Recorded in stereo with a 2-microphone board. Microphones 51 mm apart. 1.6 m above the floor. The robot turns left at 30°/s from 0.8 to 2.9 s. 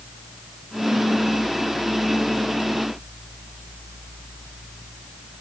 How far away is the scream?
I don't hear a scream.